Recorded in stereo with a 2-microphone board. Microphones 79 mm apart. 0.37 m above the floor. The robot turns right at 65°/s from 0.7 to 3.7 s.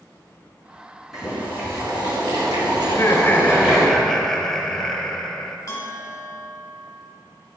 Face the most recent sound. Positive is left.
turn(degrees=40)  # may be behind; listen again after turning